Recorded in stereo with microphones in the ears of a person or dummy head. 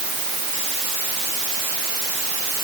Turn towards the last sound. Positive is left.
No sound to turn to.